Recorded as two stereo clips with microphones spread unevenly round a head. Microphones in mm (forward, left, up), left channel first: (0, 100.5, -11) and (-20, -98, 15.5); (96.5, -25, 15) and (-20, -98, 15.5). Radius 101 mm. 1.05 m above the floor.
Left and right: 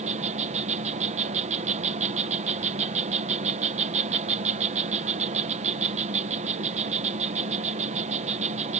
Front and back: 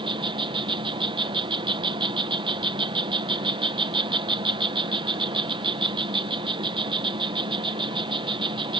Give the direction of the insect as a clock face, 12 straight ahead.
5 o'clock.